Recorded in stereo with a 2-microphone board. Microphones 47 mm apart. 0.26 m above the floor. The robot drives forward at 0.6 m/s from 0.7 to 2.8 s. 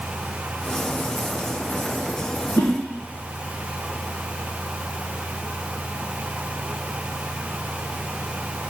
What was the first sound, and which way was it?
A whoosh, 60° left (ahead or behind).